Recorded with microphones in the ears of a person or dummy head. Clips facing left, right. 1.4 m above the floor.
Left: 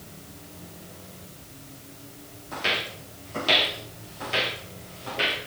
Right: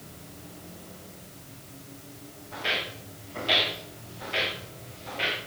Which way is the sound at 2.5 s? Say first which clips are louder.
Left 3 dB; 65° left (ahead or behind).